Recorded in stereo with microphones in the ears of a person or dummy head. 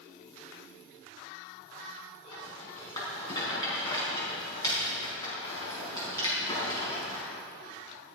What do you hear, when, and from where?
2.3 s a rattle: 20° left (ahead or behind), 4.5 m